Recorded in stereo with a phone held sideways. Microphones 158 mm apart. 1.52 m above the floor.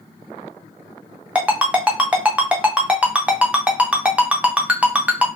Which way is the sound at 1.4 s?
5° right (ahead or behind).